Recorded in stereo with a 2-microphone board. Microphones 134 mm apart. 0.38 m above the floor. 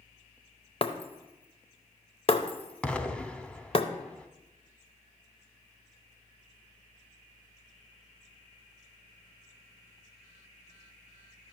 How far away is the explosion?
About 0.6 m.